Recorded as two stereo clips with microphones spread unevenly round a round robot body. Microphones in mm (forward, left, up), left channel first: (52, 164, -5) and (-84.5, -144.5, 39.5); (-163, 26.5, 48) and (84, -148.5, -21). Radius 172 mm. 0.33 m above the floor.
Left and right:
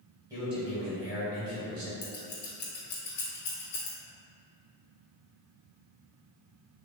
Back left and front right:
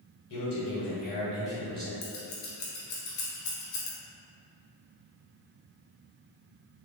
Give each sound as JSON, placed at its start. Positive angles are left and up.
{"t": 0.3, "sound": "a man speaking", "azimuth_deg": 160, "distance_m": 1.8}
{"t": 2.0, "sound": "scissors", "azimuth_deg": 130, "distance_m": 1.2}